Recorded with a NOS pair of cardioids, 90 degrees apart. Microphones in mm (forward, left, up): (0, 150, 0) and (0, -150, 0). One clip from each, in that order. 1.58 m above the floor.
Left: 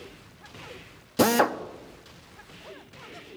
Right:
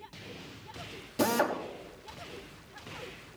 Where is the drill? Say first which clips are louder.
Left 6 dB; 40° left, 1.1 m.